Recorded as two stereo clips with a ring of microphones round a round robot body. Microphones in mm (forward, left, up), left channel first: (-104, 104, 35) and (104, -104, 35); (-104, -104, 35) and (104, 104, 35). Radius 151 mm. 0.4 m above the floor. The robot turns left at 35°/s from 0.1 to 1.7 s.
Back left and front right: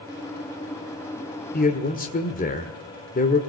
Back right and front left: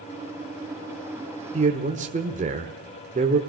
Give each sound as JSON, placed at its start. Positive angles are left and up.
{"t": 1.5, "sound": "a man speaking", "azimuth_deg": 100, "distance_m": 1.6}